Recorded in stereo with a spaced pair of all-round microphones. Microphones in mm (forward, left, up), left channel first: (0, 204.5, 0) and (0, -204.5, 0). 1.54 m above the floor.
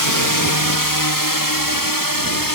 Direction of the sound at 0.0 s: 55° left (ahead or behind).